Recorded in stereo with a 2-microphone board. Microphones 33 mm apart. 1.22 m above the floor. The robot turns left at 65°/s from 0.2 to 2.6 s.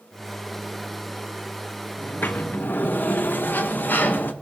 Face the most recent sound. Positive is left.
turn(degrees=75)